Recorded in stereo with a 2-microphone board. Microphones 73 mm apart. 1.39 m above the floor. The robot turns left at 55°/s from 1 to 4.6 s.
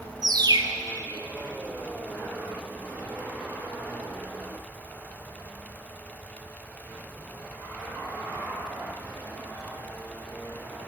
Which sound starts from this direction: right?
A bird, at 0.2 s.